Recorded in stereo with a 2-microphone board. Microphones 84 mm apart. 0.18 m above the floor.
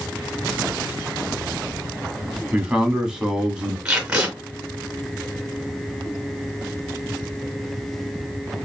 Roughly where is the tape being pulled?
Centre.